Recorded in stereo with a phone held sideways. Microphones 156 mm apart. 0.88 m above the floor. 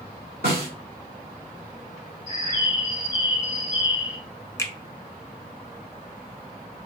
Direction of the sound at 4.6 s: 20° left (ahead or behind).